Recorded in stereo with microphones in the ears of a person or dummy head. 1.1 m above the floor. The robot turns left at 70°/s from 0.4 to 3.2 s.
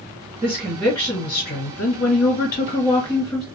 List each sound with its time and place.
0.4 s a woman speaking: 160° right, 1.4 m; by 3.5 s 5° left, 1.4 m